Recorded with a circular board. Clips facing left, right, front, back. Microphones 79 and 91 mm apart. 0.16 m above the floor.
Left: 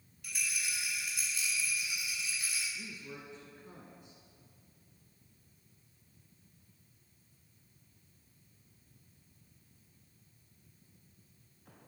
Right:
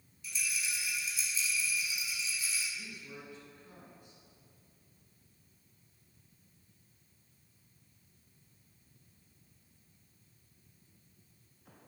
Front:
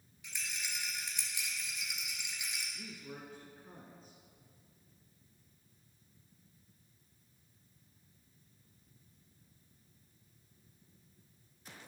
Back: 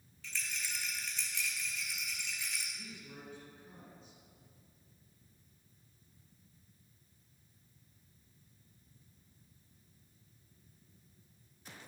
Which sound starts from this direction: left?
A rattle, at 0.2 s.